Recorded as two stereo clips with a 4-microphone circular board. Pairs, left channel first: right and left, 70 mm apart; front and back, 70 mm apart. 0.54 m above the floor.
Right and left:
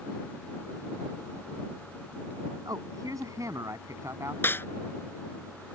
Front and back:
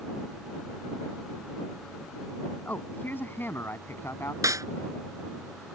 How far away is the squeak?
I don't hear a squeak.